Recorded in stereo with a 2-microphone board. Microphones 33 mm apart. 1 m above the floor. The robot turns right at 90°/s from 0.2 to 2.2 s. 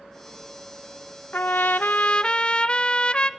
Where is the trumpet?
70° left, 0.5 m; by 3.3 s 145° left, 0.5 m.